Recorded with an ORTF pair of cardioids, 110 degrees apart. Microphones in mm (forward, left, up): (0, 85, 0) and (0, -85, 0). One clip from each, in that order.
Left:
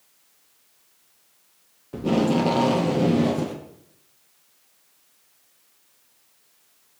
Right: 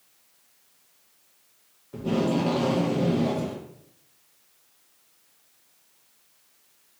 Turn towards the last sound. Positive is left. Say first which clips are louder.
# left 4 dB
turn(degrees=25)